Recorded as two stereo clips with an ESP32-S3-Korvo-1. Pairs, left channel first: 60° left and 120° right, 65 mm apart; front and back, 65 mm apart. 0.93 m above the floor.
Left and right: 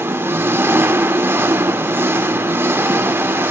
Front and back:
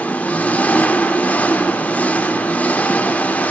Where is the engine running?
65° right, 1.1 m.